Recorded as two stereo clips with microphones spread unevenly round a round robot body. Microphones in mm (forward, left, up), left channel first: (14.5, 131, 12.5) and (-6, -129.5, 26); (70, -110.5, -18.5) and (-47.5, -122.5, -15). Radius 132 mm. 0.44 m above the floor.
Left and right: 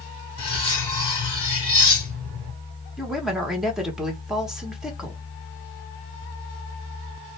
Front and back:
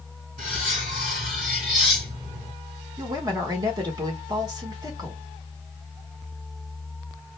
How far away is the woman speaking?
About 0.9 m.